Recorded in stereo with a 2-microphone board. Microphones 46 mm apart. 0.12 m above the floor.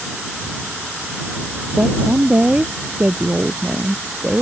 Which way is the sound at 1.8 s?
35° right (ahead or behind).